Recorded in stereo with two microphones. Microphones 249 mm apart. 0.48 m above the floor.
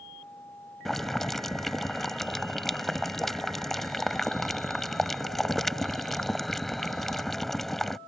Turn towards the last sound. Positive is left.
turn(degrees=0)  # may be behind; listen again after turning